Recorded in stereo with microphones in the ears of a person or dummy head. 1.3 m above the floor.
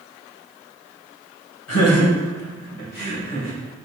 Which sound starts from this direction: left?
Laughter, at 1.7 s.